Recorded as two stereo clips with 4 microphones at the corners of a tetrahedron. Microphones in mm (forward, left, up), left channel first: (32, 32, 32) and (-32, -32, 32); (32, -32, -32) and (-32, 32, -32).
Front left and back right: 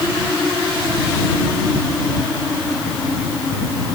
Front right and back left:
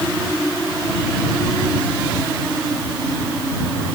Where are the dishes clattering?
I don't hear dishes clattering.